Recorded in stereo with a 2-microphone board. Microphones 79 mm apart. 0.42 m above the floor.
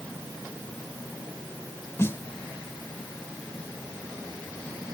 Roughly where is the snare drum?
Left.